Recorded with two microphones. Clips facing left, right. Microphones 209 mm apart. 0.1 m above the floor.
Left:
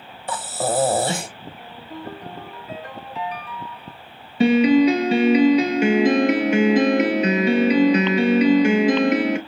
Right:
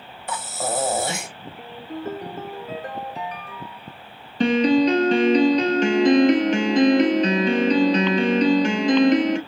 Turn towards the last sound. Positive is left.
turn(degrees=10)  # may be behind; listen again after turning